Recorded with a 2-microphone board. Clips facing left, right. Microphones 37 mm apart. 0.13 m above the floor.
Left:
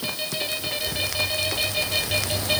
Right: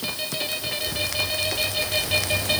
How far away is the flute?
I don't hear a flute.